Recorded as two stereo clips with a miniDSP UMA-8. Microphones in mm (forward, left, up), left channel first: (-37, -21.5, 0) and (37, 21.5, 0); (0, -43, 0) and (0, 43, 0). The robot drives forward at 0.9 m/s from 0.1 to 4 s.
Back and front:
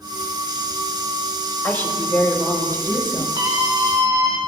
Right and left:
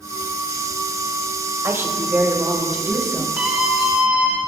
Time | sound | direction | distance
1.6 | a woman speaking | 145° left | 3.5 m
3.4 | a scream | 20° left | 1.9 m